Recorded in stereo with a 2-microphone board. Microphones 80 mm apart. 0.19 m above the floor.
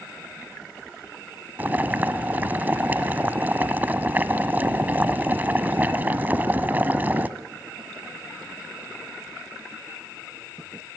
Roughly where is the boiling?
Right.